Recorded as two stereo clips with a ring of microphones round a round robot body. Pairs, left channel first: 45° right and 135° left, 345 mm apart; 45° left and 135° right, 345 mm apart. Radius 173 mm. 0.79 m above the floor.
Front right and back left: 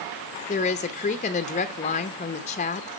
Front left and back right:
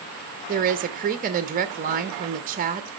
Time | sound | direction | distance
0.5 | a woman speaking | 95° right | 0.6 m